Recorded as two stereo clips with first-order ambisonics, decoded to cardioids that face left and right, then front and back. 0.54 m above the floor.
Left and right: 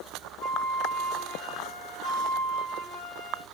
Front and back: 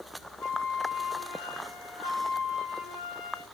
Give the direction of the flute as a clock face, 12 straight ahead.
11 o'clock.